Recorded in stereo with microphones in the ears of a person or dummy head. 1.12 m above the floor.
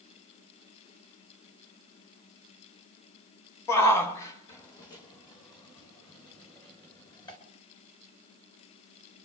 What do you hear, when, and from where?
3.7 s a shout: 15° left (ahead or behind), 1.3 m; by 7.4 s 25° left (ahead or behind), 3.5 m